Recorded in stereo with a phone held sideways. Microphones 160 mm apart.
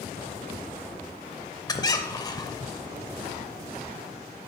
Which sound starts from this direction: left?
A squeak, at 1.7 s.